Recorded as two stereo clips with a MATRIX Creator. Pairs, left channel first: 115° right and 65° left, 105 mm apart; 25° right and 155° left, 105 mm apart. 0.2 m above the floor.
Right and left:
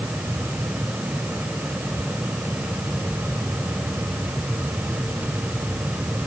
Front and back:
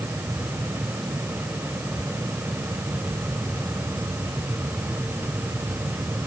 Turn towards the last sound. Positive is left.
No sound to turn to.